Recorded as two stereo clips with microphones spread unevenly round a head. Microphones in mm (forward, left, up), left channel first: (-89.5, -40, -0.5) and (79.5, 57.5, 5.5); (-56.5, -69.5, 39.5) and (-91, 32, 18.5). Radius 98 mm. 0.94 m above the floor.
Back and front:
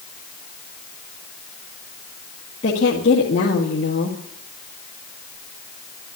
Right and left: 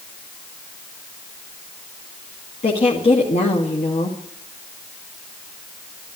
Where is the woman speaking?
95° right, 2 m.